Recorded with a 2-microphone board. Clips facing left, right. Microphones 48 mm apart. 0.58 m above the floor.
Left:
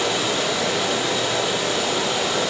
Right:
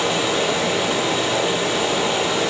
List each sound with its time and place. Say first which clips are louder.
0.0 s running water: right 2 dB; 25° right (ahead or behind), 4.5 m